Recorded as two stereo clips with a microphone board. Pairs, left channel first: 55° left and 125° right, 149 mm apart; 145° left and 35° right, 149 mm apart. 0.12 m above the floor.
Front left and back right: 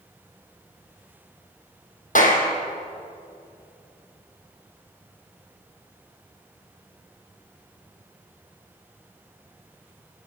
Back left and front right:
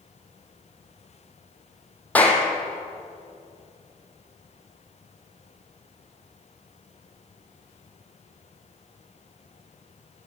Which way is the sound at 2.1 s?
65° left.